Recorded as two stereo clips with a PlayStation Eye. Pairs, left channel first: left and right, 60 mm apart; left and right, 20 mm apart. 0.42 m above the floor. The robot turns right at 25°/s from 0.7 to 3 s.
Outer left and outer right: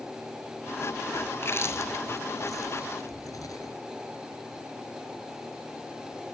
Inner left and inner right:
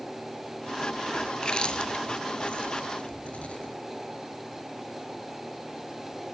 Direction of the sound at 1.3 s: 40° left (ahead or behind).